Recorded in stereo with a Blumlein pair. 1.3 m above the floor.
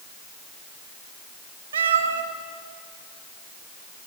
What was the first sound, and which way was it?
A cat meowing, 65° right.